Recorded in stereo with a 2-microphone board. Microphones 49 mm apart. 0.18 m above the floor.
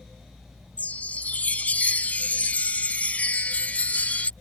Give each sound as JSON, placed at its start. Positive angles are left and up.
{"t": 0.8, "sound": "a chime", "side_deg": 30}